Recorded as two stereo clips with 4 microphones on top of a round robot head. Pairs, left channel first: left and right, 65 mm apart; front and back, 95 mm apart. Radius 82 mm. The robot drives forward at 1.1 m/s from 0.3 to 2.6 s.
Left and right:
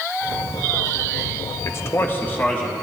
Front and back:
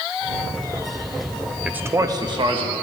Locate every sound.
1.6 s a man speaking: 100° left, 0.8 m; by 2.7 s 155° left, 1.4 m